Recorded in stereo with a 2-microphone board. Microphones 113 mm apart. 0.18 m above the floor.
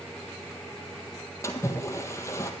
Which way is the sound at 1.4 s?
25° left (ahead or behind).